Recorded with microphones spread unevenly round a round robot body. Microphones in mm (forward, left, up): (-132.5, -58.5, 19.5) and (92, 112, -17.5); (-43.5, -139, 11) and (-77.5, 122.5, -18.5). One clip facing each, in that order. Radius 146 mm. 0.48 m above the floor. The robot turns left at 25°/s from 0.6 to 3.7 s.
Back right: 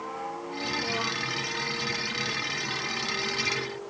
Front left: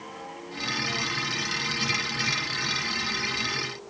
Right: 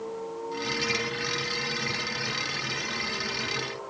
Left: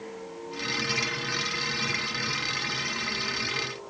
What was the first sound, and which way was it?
Only background noise.